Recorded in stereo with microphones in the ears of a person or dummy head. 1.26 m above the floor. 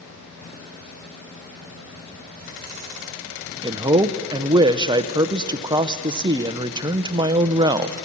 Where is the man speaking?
20° right (ahead or behind), 0.6 m.